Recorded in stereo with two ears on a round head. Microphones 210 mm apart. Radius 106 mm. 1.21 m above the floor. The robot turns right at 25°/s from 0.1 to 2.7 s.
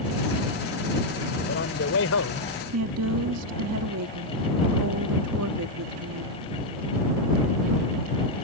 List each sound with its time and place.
1.4 s a man speaking: 45° left (ahead or behind); by 2.5 s 70° left (ahead or behind)
2.7 s a woman speaking: 70° right (ahead or behind)